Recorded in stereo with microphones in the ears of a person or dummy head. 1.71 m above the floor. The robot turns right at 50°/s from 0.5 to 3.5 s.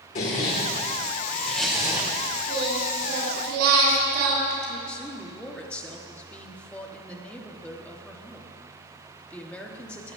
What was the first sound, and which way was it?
A zipper, 125° left.